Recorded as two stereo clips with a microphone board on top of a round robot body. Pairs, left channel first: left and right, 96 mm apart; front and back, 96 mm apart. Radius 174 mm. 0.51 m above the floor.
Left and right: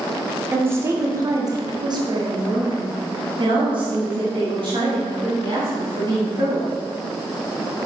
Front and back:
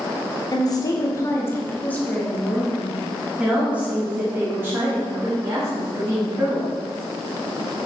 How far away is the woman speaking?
About 1.6 m.